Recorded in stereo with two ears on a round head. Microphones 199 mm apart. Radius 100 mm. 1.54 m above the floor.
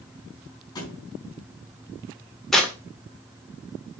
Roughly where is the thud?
Centre.